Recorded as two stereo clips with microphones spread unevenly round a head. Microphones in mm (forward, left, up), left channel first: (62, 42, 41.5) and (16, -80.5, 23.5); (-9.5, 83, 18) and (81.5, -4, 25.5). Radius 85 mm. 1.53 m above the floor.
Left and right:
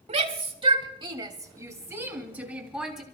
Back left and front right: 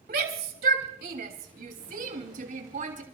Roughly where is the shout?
Right.